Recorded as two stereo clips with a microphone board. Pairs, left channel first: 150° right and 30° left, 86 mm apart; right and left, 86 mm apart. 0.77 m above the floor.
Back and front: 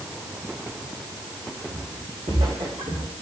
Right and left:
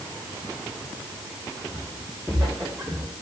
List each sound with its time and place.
1.7 s footsteps: 5° left, 5 m; by 3.1 s 20° left, 5 m